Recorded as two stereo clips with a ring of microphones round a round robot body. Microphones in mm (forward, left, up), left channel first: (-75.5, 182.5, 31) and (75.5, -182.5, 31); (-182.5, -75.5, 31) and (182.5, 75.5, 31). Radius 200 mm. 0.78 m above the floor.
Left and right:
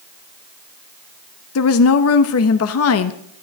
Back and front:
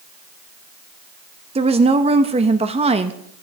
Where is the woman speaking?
90° left, 0.7 m.